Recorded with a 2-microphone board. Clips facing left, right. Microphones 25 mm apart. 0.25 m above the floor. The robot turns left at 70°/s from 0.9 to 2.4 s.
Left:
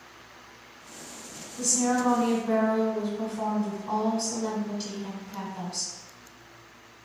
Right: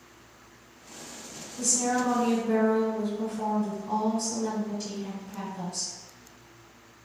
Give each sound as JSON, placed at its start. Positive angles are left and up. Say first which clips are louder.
{"t": 1.6, "sound": "a woman speaking", "louder": "left 1 dB", "azimuth_deg": 175, "distance_m": 1.4}